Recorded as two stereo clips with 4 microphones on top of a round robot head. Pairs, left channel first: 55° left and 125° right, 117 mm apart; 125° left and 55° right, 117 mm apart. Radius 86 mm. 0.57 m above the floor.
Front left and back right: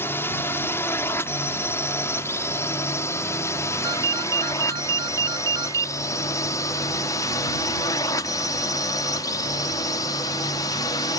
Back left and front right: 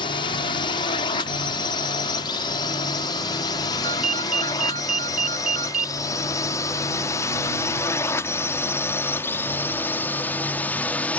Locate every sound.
0.0 s a drone: 120° left; by 11.2 s 55° left
3.8 s a ringtone: 65° right